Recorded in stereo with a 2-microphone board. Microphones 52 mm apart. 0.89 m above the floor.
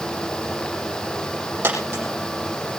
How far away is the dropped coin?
About 8 m.